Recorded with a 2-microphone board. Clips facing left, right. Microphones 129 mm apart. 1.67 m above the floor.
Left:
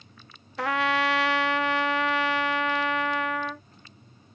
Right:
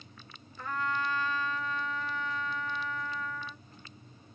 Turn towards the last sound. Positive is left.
turn(degrees=80)